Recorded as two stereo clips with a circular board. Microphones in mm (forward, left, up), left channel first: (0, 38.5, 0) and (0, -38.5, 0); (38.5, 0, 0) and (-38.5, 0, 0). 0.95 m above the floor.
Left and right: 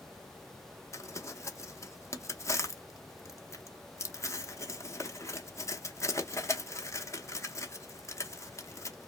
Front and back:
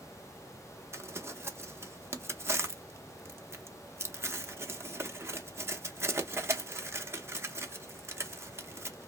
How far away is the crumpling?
About 0.6 m.